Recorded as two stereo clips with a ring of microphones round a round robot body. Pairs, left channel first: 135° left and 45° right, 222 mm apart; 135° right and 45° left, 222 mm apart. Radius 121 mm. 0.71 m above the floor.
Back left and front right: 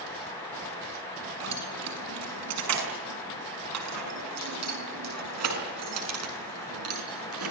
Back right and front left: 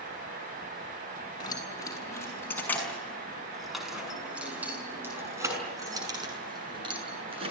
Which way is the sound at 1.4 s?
65° right.